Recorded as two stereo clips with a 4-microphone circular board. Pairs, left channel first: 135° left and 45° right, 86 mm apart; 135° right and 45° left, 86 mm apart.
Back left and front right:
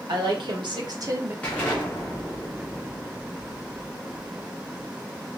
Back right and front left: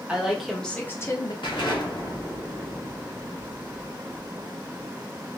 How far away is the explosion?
About 1.1 m.